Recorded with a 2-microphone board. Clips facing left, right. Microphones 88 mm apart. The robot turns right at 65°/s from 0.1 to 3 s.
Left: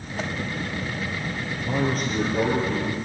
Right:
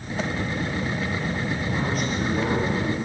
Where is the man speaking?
110° left, 6 m; by 3.0 s 160° right, 6 m.